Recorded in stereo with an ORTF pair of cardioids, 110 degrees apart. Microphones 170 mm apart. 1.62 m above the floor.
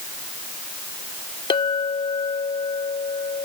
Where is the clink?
30° left.